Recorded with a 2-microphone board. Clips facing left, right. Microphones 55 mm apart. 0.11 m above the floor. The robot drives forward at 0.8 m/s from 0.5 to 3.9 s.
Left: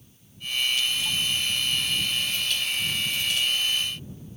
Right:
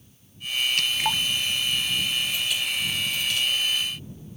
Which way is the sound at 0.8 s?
60° right (ahead or behind).